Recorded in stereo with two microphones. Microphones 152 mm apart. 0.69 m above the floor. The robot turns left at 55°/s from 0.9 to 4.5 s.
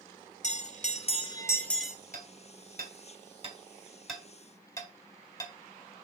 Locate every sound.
0.4 s a bell: 50° left, 1.1 m; by 1.9 s 5° right, 1.1 m
2.1 s hammering: 70° right (ahead or behind), 2.5 m; by 5.5 s 25° left (ahead or behind), 2.5 m